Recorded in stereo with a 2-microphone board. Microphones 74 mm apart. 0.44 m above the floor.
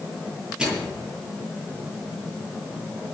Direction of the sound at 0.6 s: 10° right (ahead or behind).